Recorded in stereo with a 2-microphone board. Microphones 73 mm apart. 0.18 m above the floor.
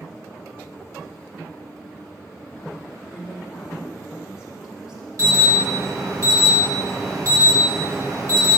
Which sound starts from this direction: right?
An alarm, at 5.2 s.